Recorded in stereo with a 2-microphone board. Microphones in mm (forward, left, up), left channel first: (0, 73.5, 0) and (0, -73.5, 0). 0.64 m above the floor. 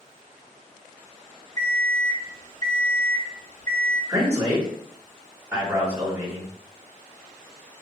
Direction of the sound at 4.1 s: 20° right (ahead or behind).